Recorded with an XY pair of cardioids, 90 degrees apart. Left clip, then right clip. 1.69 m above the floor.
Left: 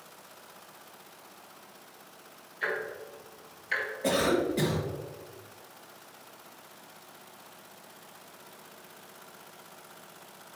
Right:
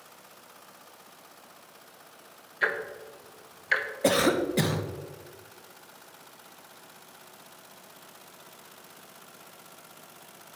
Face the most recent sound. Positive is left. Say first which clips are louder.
# right 3 dB
turn(degrees=-60)